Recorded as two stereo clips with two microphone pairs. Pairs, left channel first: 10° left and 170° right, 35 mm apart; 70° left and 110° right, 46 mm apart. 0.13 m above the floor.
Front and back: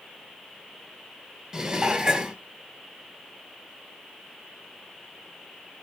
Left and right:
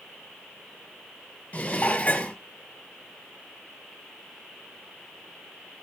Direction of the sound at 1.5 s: 125° left.